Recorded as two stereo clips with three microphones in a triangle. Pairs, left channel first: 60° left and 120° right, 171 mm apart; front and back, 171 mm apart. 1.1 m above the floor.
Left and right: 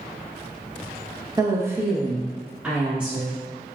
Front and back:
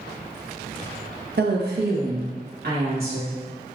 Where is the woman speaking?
175° left, 0.6 m; by 3.4 s 155° left, 2.5 m.